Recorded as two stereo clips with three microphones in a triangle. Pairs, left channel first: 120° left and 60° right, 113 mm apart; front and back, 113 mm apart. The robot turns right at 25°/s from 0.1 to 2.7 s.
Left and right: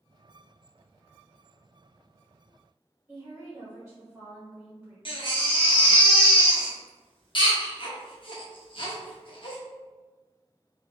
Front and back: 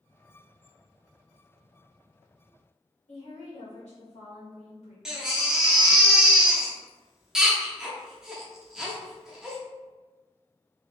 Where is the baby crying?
95° left, 1.0 m.